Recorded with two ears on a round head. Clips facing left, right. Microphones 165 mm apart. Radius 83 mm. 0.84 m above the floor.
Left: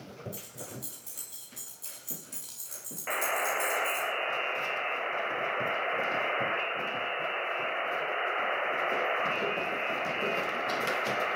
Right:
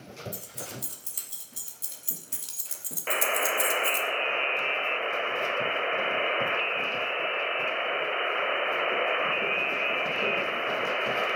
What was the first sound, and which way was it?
Keys jangling, 30° right (ahead or behind).